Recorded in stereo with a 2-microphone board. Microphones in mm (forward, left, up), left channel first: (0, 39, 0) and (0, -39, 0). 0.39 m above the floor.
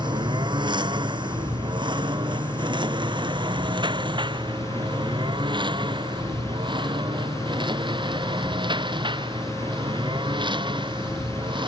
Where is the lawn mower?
70° right (ahead or behind); by 11.7 s 90° right.